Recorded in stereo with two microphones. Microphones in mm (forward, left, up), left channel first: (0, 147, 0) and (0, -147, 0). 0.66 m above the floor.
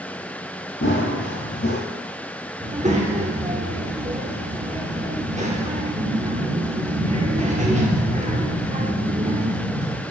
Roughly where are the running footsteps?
Left.